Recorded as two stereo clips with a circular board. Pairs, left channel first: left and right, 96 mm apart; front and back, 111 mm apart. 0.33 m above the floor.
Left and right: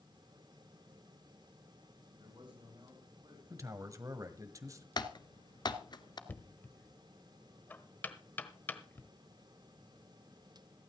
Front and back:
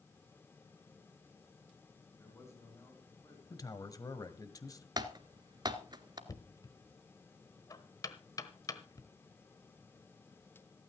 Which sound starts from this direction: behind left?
Typing on a keyboard, at 5.0 s.